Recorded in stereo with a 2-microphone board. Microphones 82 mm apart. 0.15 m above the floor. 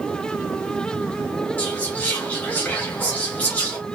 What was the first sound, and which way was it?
Whispering, 20° left (ahead or behind).